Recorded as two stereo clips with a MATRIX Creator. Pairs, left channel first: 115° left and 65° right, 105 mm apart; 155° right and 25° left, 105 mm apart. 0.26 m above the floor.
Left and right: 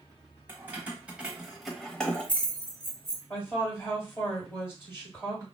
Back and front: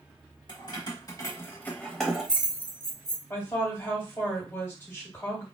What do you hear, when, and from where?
0.5 s keys jangling: 135° right, 1.1 m; by 3.2 s 65° left, 1.0 m
3.3 s a woman speaking: 155° left, 1.7 m